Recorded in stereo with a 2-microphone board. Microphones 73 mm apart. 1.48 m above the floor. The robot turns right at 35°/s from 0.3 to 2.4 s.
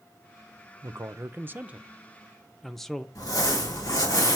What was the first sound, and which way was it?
A man speaking, 50° right.